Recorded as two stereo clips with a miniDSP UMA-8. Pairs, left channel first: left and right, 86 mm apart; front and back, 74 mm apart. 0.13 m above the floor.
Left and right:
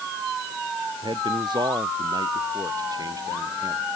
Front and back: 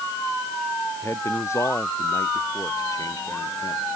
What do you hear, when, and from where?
1.0 s a man speaking: 55° right; by 3.8 s 35° right